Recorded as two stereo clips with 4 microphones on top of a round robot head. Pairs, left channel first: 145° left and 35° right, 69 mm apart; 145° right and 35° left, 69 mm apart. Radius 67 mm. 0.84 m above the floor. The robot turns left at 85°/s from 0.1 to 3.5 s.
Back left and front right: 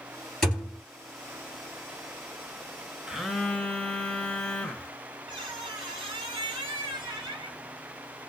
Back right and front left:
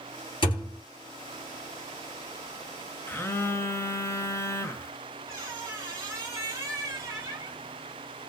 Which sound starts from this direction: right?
A phone buzzing, at 3.1 s.